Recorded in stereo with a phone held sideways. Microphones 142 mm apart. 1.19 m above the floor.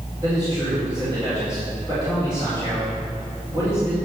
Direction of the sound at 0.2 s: 30° right (ahead or behind).